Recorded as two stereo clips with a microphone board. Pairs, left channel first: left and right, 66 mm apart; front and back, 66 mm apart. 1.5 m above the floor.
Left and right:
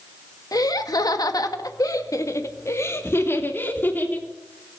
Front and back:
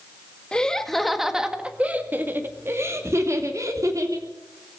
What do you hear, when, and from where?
0.5 s laughter: 75° left, 2.0 m; by 4.3 s 150° left, 3.5 m